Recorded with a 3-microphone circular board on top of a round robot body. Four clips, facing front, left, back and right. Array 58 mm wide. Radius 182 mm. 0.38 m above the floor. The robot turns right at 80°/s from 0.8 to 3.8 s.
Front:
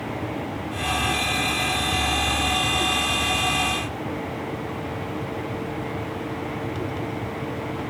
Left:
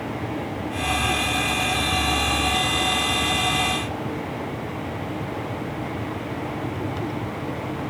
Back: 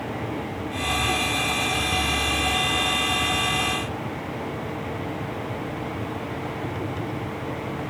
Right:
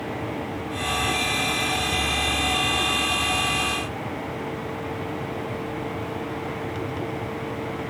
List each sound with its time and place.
Only background noise.